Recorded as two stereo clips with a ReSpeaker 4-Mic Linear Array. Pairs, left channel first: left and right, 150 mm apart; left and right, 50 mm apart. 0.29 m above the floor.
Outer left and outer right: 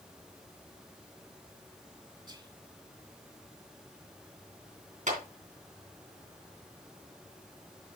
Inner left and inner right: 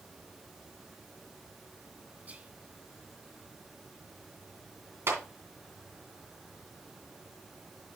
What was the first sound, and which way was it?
Whispering, 30° right (ahead or behind).